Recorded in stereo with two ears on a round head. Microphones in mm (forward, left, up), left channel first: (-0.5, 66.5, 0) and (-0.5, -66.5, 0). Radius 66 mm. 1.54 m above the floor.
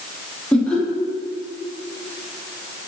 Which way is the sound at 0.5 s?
10° left (ahead or behind).